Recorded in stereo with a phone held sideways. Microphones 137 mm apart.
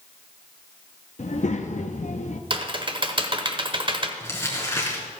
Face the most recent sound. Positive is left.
turn(degrees=20)  # may be behind; listen again after turning